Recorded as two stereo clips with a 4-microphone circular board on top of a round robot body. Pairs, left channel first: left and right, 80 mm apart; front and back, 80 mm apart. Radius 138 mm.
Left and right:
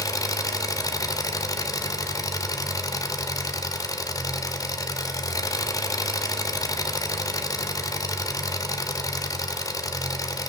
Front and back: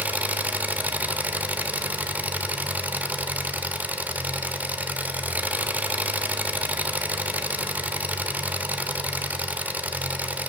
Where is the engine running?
115° left, 1.0 m.